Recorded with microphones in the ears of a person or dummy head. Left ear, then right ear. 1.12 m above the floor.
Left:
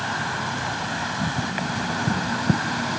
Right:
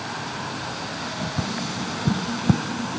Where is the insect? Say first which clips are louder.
Left 4 dB; 80° left.